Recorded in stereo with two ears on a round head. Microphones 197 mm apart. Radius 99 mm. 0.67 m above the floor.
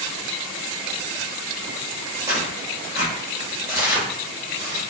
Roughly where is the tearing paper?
Centre.